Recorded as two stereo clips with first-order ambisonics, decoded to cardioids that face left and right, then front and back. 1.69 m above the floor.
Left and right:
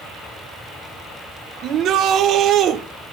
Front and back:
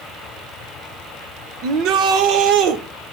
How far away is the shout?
About 1.4 m.